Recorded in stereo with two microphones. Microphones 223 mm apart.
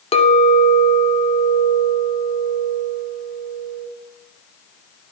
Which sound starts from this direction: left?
A clink, at 0.1 s.